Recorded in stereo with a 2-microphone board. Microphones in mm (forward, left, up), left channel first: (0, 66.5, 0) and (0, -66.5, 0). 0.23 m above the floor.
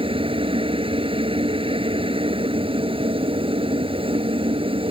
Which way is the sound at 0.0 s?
40° right (ahead or behind).